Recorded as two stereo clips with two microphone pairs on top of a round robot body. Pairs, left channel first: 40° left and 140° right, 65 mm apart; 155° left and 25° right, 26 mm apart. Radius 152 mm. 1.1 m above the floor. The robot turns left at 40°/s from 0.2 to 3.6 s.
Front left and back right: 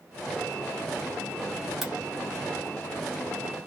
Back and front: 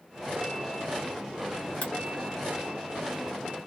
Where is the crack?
135° left, 0.8 m; by 1.9 s 130° left, 0.8 m.